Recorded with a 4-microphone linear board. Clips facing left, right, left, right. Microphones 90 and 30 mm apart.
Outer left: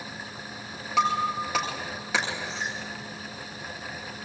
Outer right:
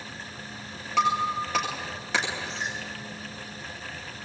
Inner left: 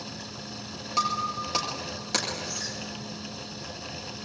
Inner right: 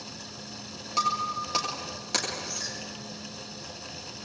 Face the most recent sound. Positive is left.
turn(degrees=0)  # may be behind; listen again after turning